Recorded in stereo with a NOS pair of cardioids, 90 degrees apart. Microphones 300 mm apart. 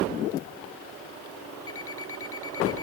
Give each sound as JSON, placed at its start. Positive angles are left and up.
{"t": 1.7, "sound": "an alarm clock", "azimuth_deg": 45}